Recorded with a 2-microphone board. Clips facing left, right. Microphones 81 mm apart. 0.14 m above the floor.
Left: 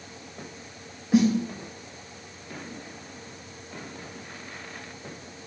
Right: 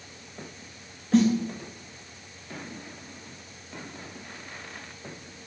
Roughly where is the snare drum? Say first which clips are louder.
Even; centre.